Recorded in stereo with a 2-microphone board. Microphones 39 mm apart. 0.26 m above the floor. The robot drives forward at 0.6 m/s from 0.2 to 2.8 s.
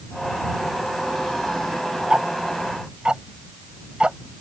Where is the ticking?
20° right (ahead or behind); by 4.2 s 25° right (ahead or behind).